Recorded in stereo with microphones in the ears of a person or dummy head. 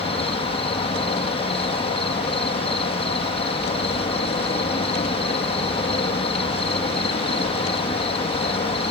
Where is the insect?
35° left (ahead or behind).